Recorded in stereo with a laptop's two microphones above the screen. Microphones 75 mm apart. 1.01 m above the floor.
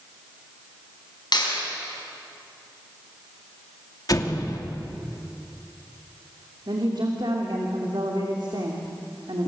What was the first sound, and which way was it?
A clap, 65° left (ahead or behind).